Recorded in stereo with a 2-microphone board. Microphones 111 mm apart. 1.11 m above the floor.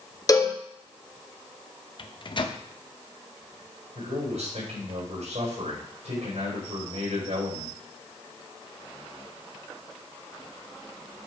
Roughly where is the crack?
I don't hear a crack.